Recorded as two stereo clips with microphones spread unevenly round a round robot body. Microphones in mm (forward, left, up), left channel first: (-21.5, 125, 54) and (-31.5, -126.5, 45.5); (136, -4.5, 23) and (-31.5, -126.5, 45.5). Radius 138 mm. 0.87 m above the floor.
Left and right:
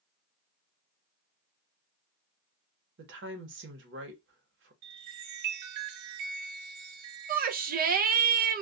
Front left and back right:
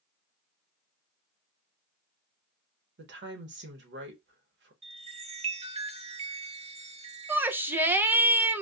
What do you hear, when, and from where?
3.0 s a woman speaking: 120° right, 1.1 m
4.8 s a chime: 80° right, 0.9 m
7.3 s a shout: 60° right, 0.5 m